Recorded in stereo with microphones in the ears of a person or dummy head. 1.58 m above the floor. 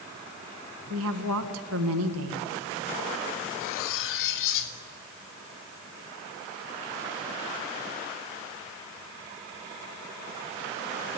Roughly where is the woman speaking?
Right.